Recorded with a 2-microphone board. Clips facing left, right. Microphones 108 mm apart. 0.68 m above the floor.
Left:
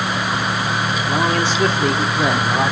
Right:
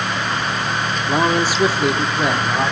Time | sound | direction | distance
1.1 | a man speaking | 20° right (ahead or behind) | 1.8 m